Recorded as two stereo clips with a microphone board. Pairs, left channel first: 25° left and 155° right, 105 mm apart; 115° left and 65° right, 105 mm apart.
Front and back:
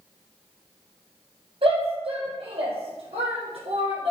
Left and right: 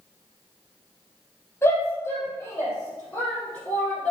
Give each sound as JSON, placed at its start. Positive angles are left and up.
{"t": 1.6, "sound": "a shout", "azimuth_deg": 180, "distance_m": 4.0}